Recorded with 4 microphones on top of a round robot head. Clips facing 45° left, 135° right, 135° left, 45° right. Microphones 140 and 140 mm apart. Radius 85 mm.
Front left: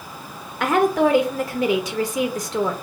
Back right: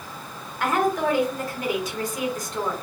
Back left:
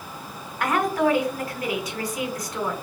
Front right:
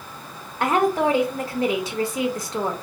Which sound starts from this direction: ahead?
A woman speaking, at 0.6 s.